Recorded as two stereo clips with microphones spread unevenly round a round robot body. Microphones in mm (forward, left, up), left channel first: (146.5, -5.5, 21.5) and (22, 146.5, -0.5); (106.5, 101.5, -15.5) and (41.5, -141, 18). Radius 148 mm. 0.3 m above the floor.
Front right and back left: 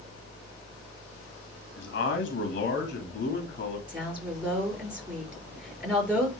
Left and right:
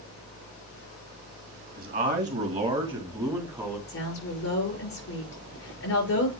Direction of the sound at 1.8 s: 50° right.